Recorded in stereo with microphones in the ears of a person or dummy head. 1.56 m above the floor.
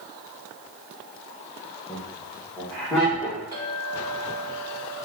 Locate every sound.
1.9 s laughter: 10° left (ahead or behind), 1.7 m; by 3.4 s 10° right (ahead or behind), 2 m
3.5 s a clink: 25° right (ahead or behind), 1.8 m